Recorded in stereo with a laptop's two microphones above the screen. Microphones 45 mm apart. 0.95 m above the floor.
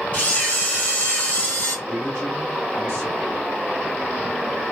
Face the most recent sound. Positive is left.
turn(degrees=60)  # may be behind; listen again after turning